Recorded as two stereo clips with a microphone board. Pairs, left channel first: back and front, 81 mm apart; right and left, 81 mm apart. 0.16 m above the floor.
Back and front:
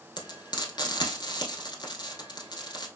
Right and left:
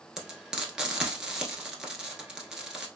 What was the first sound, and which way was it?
Frying, 170° left.